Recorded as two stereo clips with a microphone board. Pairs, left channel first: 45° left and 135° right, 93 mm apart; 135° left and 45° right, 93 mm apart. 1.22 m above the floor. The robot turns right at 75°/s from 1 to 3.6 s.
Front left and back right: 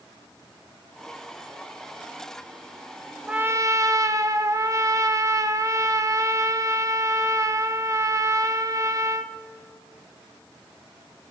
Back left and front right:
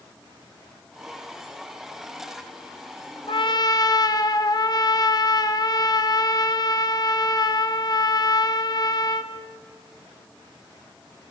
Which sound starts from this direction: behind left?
A trumpet, at 3.3 s.